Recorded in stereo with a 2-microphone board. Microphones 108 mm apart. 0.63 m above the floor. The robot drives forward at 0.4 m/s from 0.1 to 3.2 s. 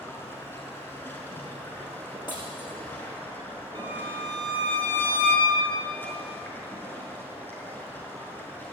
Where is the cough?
I don't hear a cough.